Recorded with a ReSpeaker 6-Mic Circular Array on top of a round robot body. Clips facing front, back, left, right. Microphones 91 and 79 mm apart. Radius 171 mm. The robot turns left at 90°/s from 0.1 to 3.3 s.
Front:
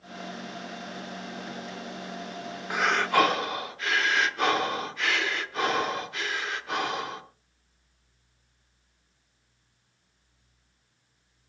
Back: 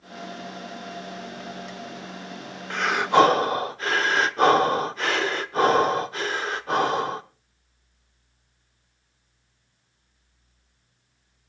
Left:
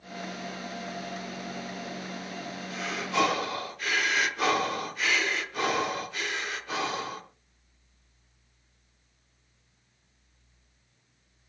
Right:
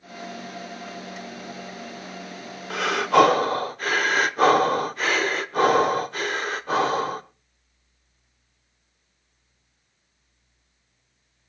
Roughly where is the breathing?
Right.